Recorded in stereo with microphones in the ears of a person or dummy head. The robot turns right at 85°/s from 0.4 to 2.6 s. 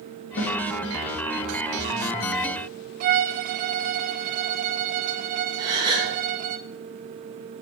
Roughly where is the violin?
Right.